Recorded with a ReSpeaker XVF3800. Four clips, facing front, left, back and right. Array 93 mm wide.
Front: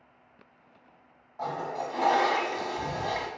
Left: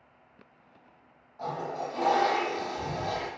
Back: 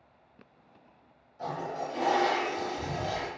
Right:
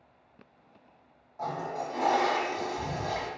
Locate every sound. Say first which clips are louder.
1.4 s a toilet flushing: even, front 2 dB; 10° right, 1.2 m